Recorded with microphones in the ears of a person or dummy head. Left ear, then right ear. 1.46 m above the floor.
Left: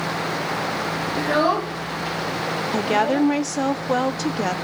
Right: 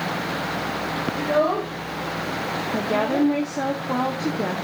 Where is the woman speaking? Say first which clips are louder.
Left 3 dB; 70° left (ahead or behind), 0.6 m.